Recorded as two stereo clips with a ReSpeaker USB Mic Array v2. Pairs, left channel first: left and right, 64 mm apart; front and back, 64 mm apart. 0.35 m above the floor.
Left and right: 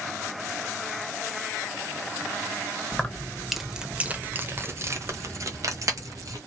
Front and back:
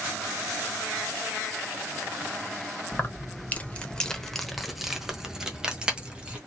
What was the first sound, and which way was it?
Keys jangling, 30° left.